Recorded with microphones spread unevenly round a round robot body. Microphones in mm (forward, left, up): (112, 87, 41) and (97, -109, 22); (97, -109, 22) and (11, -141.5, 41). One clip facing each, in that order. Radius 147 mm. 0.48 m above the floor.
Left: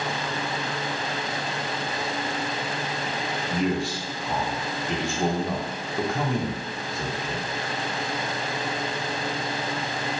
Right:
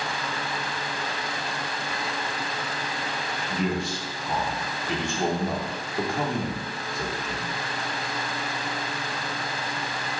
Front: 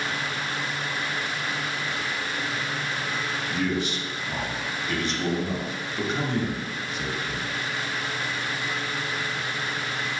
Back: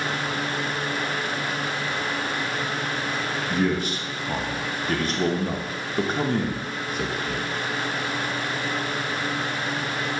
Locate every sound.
3.5 s a man speaking: 175° right, 0.9 m